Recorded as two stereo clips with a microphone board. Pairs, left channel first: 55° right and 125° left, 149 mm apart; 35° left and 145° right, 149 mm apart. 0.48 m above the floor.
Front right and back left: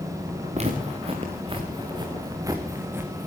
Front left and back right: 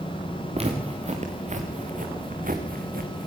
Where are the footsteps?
165° left, 4 m; by 3.3 s 155° right, 3 m.